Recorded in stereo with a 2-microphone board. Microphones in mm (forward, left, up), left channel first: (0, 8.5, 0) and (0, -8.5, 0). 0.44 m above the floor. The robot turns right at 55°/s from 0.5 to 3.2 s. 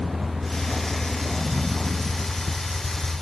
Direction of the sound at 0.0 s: 50° right.